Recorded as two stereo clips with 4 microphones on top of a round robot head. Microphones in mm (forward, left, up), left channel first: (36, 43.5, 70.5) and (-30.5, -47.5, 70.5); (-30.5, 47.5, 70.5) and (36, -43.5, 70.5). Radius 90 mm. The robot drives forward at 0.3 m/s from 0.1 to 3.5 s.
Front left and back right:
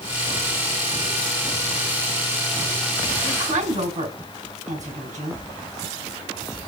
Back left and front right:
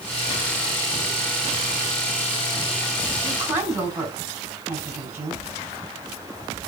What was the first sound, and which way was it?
A woman speaking, 125° right.